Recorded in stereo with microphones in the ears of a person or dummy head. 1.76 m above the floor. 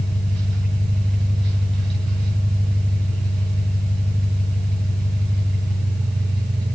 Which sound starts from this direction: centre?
An engine running, at 0.0 s.